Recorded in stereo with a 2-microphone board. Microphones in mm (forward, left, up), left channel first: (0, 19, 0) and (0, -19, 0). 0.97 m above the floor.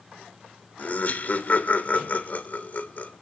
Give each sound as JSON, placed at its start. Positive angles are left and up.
{"t": 0.8, "sound": "laughter", "side_deg": 50, "distance_m": 2.5}